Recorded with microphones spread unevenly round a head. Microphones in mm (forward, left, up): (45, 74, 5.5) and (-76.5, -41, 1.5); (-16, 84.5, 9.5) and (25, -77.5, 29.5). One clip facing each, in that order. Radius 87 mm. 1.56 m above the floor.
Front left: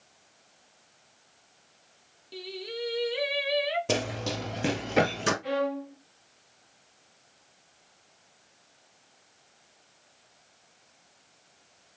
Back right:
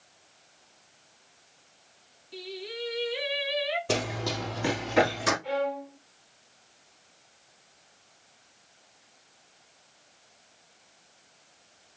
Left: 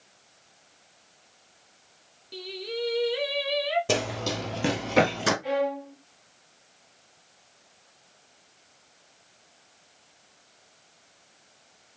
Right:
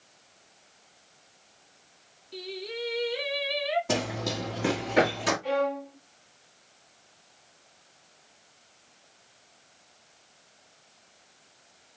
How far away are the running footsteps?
About 2 m.